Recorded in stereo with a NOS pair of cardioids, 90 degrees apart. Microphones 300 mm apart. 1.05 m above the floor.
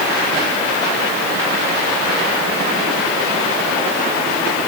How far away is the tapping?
No tapping in this recording.